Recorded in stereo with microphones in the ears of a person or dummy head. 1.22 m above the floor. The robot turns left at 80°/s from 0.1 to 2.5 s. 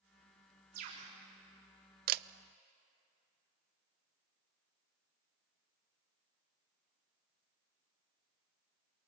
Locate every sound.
0.7 s a bird: 125° right, 3.5 m; by 1.1 s 155° right, 3.5 m
2.1 s a camera shutter: 50° right (ahead or behind), 0.5 m; by 2.2 s 60° right (ahead or behind), 0.5 m